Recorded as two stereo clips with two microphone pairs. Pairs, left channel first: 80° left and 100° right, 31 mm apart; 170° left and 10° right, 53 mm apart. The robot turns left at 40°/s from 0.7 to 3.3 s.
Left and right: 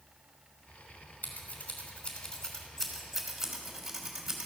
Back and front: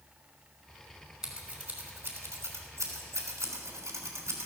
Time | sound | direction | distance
1.2 | scissors | 65° left | 3 m